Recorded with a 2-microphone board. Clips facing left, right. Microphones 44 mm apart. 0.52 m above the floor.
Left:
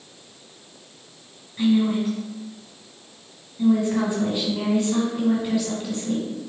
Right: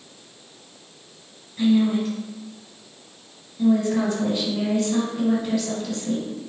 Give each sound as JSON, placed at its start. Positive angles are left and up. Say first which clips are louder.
{"t": 1.6, "sound": "a woman speaking", "louder": "right 1 dB", "side_deg": 15, "distance_m": 2.0}